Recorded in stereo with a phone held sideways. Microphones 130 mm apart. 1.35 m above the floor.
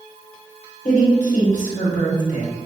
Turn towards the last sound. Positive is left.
turn(degrees=75)  # may be behind; listen again after turning